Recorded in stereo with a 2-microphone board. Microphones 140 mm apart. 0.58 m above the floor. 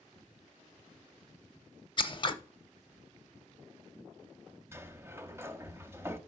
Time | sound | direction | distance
2.0 | scissors | 35° left (ahead or behind) | 0.6 m
4.7 | a sliding door | 20° right (ahead or behind) | 0.5 m